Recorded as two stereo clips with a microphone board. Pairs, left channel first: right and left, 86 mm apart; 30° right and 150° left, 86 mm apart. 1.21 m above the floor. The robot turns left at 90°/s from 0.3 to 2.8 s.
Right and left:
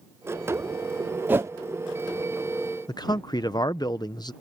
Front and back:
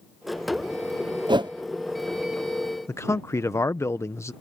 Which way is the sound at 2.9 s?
80° right.